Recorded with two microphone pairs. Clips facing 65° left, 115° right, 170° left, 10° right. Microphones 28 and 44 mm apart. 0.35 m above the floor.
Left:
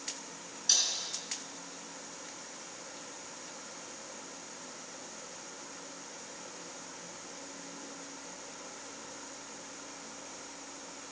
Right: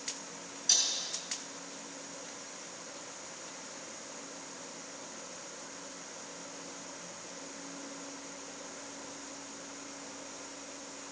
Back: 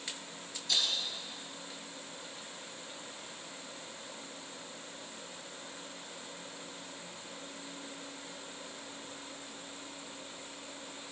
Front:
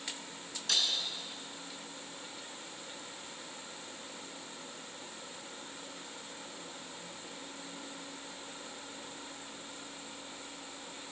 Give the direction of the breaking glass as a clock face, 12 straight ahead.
12 o'clock.